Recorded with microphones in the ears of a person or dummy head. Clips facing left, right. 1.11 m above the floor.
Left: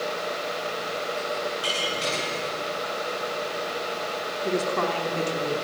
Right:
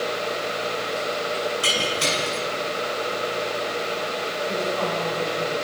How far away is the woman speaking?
About 3.5 m.